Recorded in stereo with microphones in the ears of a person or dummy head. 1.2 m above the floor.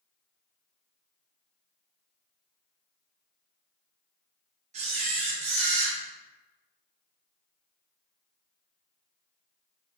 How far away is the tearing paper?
No tearing paper in this recording.